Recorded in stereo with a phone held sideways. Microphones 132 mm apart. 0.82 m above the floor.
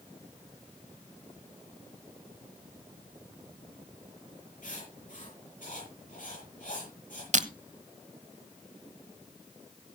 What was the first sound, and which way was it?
Writing, 70° left (ahead or behind).